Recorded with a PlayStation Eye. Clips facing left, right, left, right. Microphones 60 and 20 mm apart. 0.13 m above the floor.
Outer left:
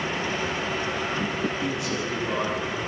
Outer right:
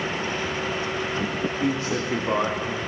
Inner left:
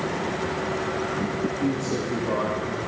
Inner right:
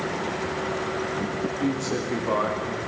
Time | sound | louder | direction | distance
1.6 | a man speaking | outer right 3 dB, even | 35° right (ahead or behind) | 9 m